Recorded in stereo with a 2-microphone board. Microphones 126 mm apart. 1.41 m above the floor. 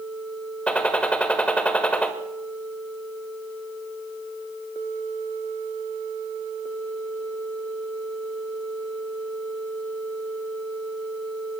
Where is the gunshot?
10° left (ahead or behind), 1.9 m.